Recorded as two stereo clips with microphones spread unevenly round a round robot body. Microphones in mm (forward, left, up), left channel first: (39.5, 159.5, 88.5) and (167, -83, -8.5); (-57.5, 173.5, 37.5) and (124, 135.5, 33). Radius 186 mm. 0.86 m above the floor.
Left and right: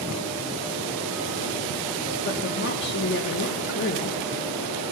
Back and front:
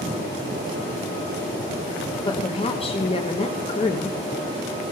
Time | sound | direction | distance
2.2 | a woman speaking | 170° left | 0.8 m